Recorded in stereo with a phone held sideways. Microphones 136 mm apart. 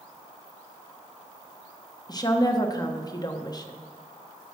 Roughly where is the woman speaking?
Left.